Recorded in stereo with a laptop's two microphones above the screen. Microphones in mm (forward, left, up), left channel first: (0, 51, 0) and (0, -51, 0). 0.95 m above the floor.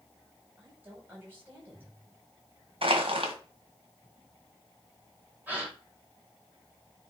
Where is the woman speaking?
20° right (ahead or behind), 4.5 m.